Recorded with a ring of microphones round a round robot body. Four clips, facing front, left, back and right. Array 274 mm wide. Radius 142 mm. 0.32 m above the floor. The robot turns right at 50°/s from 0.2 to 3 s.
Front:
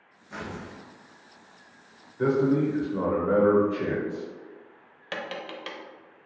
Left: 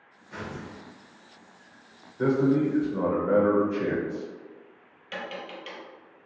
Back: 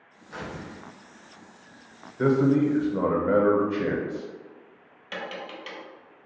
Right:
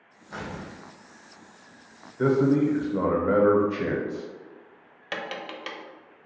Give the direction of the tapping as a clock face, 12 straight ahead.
2 o'clock.